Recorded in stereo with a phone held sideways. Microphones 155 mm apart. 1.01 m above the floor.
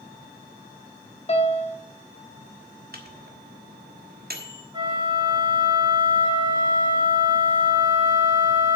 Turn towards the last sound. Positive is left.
turn(degrees=-30)  # may be behind; listen again after turning